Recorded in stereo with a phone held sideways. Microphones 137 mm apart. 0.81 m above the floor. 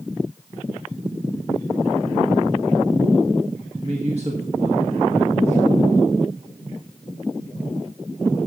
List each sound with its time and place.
3.8 s a man speaking: 50° right (ahead or behind), 1.5 m